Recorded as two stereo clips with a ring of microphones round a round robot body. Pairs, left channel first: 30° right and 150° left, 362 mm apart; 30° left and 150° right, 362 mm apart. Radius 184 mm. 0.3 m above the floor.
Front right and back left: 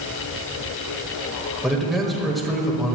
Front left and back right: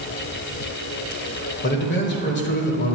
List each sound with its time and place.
1.6 s a man speaking: 60° left, 1.2 m